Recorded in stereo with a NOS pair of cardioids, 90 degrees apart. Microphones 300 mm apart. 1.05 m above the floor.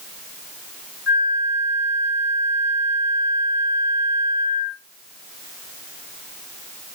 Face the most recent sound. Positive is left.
turn(degrees=-5)